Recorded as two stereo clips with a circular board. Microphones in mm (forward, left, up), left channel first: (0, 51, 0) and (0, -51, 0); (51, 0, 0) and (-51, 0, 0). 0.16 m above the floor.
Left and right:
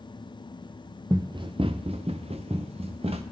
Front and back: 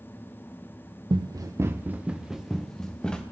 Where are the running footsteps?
140° right, 0.8 m; by 3.2 s 80° right, 1.5 m.